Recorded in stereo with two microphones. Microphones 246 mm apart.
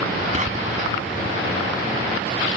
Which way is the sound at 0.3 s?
30° right (ahead or behind).